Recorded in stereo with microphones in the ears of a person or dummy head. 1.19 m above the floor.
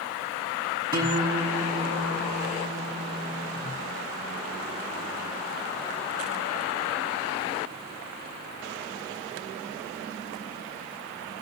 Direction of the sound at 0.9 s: 25° right (ahead or behind).